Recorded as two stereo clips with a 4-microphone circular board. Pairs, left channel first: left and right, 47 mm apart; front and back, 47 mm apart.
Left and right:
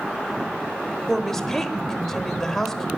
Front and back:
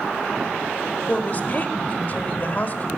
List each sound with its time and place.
1.1 s a woman speaking: 15° left, 1.1 m